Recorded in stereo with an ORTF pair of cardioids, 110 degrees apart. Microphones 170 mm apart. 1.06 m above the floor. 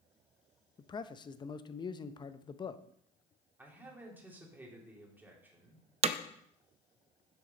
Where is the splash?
I don't hear a splash.